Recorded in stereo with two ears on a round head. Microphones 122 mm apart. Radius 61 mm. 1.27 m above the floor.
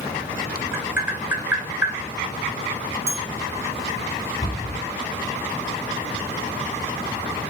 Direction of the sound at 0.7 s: 15° right (ahead or behind).